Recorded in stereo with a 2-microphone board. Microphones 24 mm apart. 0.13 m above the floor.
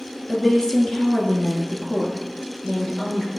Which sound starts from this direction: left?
A woman speaking, at 0.3 s.